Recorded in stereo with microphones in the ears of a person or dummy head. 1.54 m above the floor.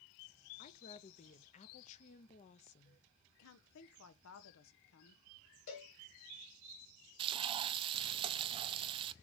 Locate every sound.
0.6 s a woman speaking: 35° left (ahead or behind), 0.7 m
3.4 s a woman speaking: 80° left, 1.0 m
5.7 s a cowbell: 60° left (ahead or behind), 3 m
7.2 s frying: 25° right (ahead or behind), 0.6 m